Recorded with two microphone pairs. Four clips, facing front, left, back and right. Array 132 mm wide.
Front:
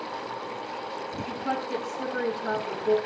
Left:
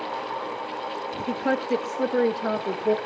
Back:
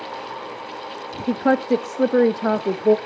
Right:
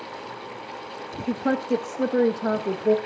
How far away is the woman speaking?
About 0.8 m.